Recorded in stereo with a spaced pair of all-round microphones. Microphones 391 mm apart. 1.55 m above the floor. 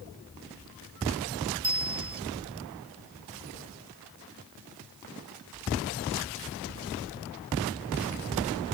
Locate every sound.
1.6 s a bicycle bell: 50° right (ahead or behind)